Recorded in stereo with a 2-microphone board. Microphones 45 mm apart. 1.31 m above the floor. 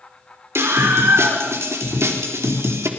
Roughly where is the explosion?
I don't hear an explosion.